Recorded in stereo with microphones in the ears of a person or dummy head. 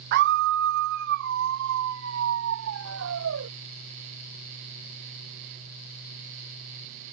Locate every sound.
0.1 s a scream: 50° right (ahead or behind); by 3.5 s 60° right (ahead or behind)